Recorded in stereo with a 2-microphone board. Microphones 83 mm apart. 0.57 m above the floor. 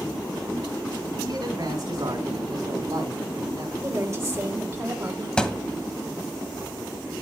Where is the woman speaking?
35° right (ahead or behind), 2.5 m.